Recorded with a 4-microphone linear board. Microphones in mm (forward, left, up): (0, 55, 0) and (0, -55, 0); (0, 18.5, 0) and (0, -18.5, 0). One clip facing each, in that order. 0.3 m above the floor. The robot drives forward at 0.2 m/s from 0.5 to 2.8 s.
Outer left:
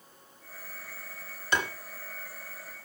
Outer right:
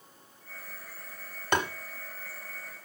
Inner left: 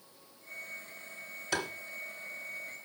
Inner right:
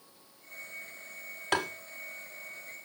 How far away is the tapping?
About 1.4 m.